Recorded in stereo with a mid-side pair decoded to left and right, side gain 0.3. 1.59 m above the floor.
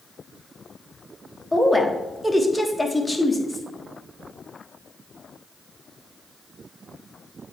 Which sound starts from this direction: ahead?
A woman speaking, at 1.5 s.